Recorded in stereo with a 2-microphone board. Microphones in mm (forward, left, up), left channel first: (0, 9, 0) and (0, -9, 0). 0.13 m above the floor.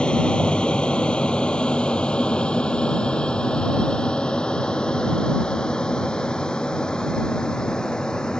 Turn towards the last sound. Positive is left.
turn(degrees=50)  # may be behind; listen again after turning